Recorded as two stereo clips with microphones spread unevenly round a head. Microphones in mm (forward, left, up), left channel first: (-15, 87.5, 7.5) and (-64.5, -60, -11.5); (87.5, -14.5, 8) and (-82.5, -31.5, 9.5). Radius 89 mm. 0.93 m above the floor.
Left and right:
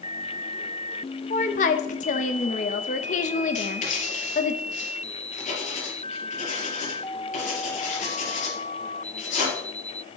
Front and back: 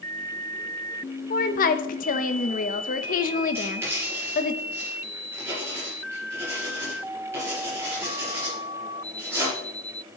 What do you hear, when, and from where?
1.3 s a woman speaking: 30° left, 1.1 m
3.5 s writing: 110° left, 4.5 m